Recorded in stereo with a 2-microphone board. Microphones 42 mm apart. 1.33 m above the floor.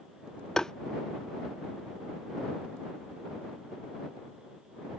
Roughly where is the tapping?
Centre.